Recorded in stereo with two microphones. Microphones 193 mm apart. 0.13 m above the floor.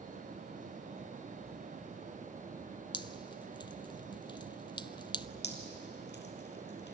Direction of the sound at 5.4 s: 65° left (ahead or behind).